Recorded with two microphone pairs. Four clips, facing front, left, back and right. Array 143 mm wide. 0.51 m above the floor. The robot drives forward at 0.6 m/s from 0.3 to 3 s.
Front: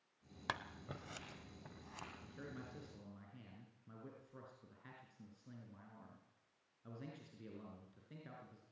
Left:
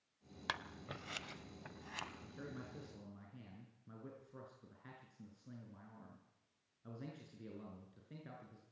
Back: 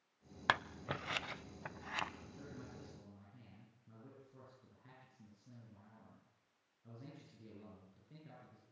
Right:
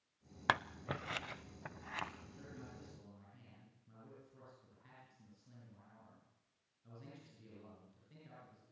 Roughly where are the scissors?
Behind right.